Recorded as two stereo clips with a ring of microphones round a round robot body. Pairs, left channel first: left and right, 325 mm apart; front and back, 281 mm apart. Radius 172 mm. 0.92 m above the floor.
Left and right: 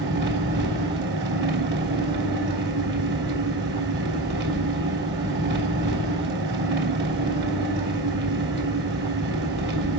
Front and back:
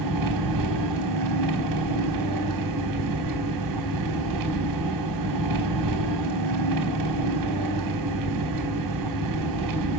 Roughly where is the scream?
I don't hear a scream.